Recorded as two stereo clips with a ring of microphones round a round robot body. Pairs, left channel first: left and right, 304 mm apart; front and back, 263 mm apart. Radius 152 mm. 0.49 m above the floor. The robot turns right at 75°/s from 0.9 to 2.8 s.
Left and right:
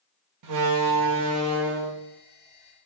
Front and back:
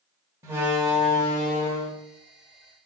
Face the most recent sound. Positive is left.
turn(degrees=40)